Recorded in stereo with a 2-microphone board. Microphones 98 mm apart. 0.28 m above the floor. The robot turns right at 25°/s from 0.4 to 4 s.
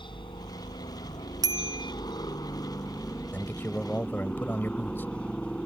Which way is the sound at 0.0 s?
75° left.